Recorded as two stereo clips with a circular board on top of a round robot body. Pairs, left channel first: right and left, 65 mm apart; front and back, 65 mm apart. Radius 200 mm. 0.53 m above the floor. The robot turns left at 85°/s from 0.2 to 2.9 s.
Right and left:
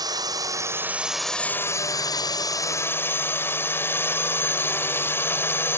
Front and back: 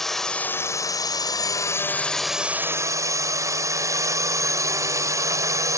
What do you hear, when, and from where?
0.0 s a drone: 85° left; by 5.8 s 145° right